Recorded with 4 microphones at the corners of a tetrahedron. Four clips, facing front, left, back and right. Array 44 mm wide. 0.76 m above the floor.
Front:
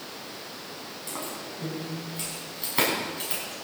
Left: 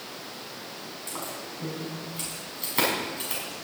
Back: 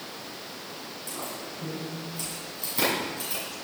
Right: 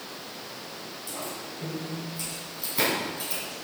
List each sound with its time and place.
1.1 s keys jangling: 40° left, 5 m